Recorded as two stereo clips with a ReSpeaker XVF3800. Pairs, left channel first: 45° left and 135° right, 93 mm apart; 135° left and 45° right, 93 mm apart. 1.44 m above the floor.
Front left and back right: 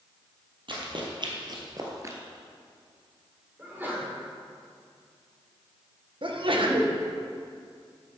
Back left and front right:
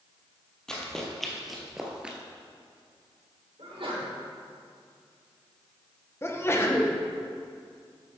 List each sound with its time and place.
0.7 s running footsteps: 145° right, 2.5 m; by 2.2 s 115° right, 1.6 m
3.6 s a sneeze: 65° right, 4 m
6.2 s a sneeze: 165° right, 1.4 m